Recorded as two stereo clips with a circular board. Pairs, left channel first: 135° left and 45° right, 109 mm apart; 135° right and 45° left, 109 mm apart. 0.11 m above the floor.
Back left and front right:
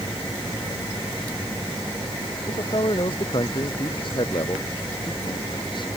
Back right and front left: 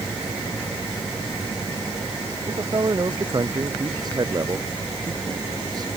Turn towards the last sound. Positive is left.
turn(degrees=95)